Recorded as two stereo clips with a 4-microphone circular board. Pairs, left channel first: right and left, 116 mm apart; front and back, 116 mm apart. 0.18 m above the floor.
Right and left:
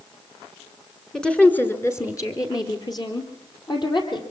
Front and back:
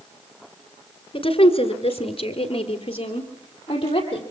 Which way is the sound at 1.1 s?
5° right.